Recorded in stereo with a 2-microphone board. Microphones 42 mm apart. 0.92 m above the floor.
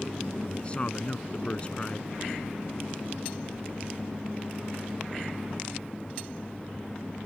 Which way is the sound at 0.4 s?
25° left (ahead or behind).